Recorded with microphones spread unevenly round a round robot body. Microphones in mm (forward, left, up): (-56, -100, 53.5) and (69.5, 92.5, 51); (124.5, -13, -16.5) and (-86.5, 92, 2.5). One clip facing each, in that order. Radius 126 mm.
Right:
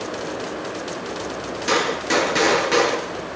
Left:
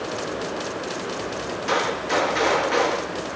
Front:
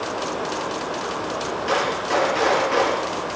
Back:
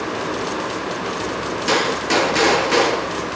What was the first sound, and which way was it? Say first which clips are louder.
A gunshot: right 4 dB, back 4 dB; 165° right.